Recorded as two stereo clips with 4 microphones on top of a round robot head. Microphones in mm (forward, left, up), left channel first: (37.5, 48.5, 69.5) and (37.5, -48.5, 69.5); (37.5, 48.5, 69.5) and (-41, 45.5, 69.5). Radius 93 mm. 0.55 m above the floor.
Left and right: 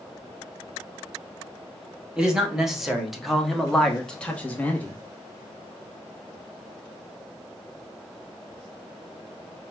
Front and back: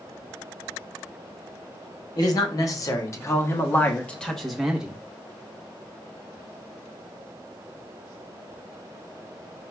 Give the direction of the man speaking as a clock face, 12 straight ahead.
12 o'clock.